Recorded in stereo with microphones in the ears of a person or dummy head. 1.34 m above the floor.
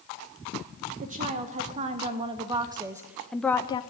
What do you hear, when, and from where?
1.0 s a woman speaking: 50° right (ahead or behind), 2.0 m; by 3.8 s 25° left (ahead or behind), 0.6 m